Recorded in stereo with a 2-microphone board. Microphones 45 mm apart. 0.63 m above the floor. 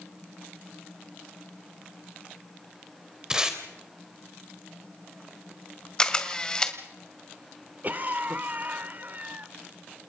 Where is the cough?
40° right (ahead or behind), 1.5 m.